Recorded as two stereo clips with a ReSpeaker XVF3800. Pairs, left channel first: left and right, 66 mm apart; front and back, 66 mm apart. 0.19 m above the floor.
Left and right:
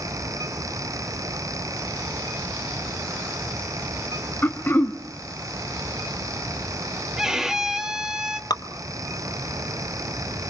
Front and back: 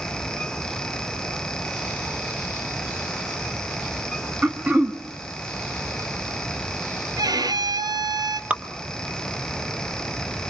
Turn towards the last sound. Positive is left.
turn(degrees=110)